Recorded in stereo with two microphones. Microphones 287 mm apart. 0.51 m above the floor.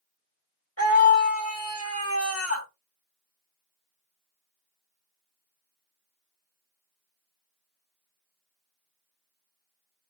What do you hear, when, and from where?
0.8 s a scream: 55° left (ahead or behind), 1.6 m